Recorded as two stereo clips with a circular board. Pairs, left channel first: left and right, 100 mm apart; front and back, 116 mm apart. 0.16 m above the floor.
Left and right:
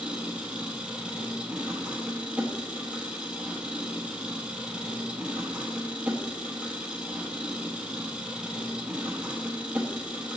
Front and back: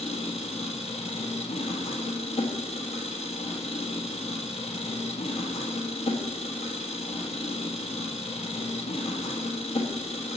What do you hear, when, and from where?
0.0 s an engine running: 10° right, 1.2 m